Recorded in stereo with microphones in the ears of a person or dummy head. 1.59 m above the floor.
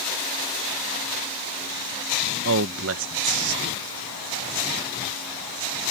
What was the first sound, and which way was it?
A man speaking, 75° right (ahead or behind).